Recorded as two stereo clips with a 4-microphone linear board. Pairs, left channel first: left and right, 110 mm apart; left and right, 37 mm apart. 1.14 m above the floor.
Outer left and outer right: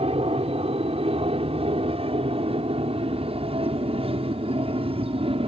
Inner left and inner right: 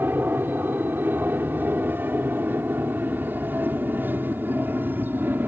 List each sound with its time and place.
0.0 s an aircraft: 65° right (ahead or behind); by 5.5 s 60° right (ahead or behind)